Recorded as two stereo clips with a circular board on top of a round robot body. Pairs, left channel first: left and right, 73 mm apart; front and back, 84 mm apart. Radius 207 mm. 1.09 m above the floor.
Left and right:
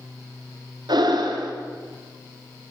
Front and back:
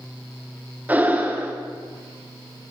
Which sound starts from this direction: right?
Breathing, at 0.9 s.